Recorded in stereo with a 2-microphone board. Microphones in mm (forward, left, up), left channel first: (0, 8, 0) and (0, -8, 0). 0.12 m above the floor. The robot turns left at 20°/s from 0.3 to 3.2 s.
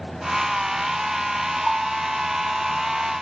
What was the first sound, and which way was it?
A bell, 50° right (ahead or behind).